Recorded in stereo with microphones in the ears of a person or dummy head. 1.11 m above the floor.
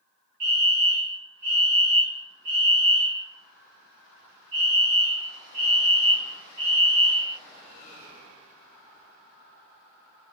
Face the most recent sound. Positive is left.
turn(degrees=-50)  # may be behind; listen again after turning